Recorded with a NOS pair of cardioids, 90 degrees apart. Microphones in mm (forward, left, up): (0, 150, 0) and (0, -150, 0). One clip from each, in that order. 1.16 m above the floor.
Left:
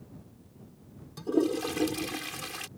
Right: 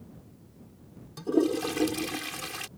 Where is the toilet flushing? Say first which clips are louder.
Right 2 dB; 10° right.